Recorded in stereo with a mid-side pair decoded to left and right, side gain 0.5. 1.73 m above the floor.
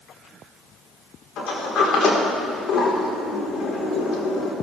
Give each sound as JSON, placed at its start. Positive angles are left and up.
{"t": 1.4, "sound": "a sliding door", "azimuth_deg": 65, "distance_m": 4.0}